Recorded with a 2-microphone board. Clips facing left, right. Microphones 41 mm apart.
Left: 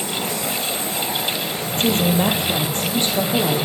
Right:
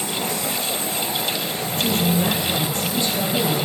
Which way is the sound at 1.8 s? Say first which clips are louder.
Left 3 dB; 50° left (ahead or behind).